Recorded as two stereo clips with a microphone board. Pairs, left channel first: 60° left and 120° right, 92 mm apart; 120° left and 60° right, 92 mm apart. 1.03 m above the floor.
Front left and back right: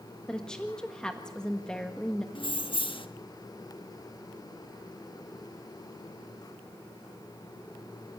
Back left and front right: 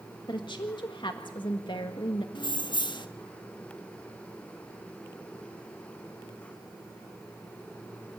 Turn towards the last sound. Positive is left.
turn(degrees=85)